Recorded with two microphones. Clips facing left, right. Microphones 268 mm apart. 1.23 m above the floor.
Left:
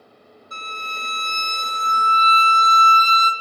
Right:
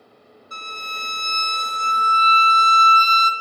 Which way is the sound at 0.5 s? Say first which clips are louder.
Left 2 dB; 30° left (ahead or behind).